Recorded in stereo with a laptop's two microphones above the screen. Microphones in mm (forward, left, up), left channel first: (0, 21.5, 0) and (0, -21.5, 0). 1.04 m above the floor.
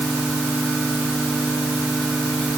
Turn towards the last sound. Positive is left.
No sound to turn to.